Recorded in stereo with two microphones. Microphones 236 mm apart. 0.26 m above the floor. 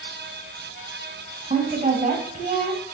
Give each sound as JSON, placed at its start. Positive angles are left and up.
{"t": 1.5, "sound": "a woman speaking", "side_deg": -35, "distance_m": 1.6}